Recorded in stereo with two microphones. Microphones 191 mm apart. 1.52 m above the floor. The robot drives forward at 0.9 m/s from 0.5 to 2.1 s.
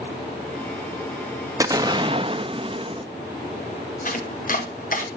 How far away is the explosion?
About 1.1 m.